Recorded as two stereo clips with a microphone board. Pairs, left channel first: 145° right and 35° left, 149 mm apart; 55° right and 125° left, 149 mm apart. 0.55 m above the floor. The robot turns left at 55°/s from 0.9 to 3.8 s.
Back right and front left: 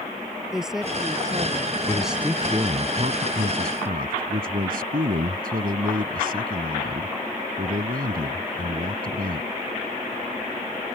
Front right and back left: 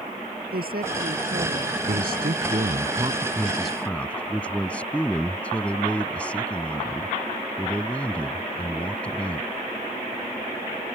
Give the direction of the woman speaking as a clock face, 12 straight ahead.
8 o'clock.